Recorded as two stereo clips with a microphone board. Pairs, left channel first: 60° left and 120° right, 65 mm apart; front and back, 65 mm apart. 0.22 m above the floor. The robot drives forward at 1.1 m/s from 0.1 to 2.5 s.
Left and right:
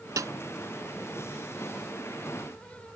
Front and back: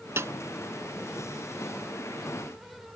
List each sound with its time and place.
0.2 s a snare drum: 135° right; by 0.3 s 145° right